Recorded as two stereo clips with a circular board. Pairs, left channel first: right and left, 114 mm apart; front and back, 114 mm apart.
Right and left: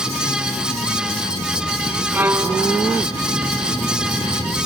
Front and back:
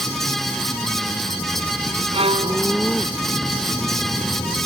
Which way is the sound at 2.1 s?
160° left.